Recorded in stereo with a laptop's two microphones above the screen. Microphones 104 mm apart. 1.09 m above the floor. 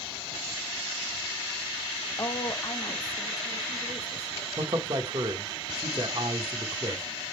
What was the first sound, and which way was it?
A woman speaking, 35° left (ahead or behind).